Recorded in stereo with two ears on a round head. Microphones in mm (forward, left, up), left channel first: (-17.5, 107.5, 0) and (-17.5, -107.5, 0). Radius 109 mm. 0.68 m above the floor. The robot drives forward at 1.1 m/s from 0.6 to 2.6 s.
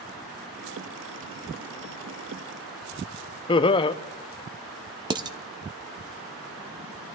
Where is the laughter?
20° left (ahead or behind), 0.5 m.